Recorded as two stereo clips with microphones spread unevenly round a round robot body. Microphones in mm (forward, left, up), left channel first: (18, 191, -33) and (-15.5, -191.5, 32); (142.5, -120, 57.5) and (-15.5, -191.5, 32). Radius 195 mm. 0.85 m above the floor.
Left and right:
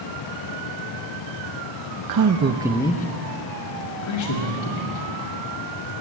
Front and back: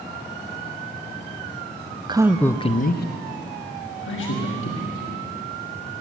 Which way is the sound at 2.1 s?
115° right.